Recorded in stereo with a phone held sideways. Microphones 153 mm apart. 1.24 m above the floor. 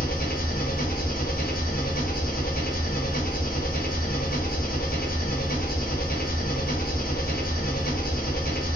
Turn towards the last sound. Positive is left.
turn(degrees=70)  # may be behind; listen again after turning